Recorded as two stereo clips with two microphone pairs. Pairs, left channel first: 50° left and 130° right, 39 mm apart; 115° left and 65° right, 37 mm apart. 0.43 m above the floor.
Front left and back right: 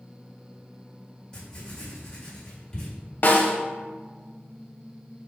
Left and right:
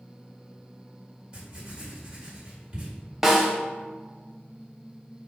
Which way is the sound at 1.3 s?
10° right.